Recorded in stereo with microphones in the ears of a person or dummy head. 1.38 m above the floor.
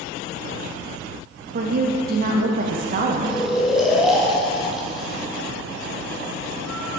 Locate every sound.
1.5 s a woman speaking: 45° right (ahead or behind), 0.7 m
3.2 s snoring: centre (ahead or behind), 1.1 m